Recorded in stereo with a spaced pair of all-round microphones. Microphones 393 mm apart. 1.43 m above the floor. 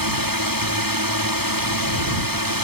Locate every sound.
0.0 s a drone: 60° right (ahead or behind)